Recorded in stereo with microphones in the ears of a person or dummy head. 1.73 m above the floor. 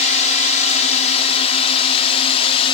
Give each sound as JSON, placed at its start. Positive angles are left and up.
{"t": 0.0, "sound": "a drone", "side_deg": 35}